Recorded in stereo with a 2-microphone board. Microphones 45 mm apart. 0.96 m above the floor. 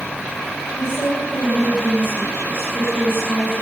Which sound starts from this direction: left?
A woman speaking, at 0.8 s.